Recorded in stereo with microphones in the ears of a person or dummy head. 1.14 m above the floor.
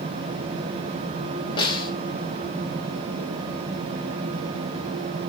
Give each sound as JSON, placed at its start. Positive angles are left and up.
{"t": 1.6, "sound": "a snare drum", "side_deg": 25, "distance_m": 2.5}